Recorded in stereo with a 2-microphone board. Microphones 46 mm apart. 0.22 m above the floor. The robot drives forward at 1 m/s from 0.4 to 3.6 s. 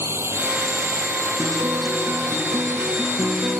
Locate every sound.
0.0 s a drone: 65° right (ahead or behind); by 3.6 s 70° right (ahead or behind)
1.4 s a guitar: 50° right (ahead or behind); by 3.6 s 55° right (ahead or behind)